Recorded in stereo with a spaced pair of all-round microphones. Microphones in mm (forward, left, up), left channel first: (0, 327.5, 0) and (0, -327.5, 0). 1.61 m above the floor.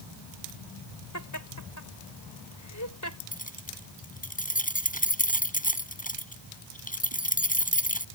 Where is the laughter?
25° left (ahead or behind).